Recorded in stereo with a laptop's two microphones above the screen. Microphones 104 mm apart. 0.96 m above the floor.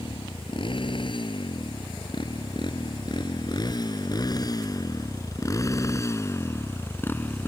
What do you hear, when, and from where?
0.0 s a motorcycle: 55° left (ahead or behind); by 7.5 s 15° left (ahead or behind)